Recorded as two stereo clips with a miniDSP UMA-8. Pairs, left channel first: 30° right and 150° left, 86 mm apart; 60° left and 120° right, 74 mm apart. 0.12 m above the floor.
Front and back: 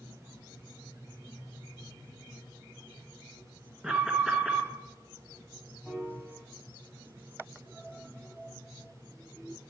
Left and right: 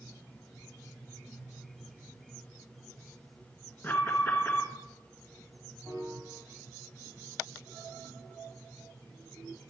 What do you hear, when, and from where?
3.8 s an alarm: 75° left, 1.3 m
5.8 s a piano: 100° right, 5 m